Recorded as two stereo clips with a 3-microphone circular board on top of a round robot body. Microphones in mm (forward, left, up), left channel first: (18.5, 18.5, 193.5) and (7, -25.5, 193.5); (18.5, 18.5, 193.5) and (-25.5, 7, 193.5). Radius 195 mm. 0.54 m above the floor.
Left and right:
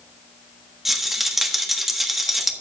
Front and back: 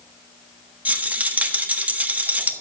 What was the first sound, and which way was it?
A rattle, 175° left.